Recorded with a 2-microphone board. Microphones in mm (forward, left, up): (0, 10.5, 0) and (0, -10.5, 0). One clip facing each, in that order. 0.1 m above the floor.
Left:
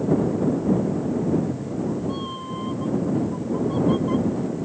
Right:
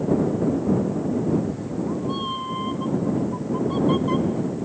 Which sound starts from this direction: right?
A cat meowing, at 1.3 s.